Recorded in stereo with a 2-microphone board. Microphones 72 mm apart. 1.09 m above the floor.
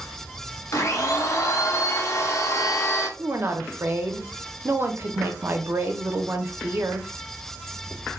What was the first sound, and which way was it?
A blender, 50° left (ahead or behind).